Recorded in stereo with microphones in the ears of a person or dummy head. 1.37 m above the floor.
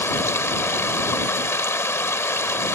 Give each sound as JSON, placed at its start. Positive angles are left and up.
{"t": 0.0, "sound": "running water", "side_deg": 10}